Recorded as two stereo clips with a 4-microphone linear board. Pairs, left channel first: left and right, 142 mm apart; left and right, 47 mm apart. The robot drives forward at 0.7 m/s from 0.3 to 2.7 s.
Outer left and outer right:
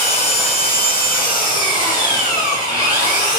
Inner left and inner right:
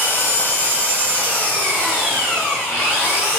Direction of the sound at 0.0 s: 45° left (ahead or behind).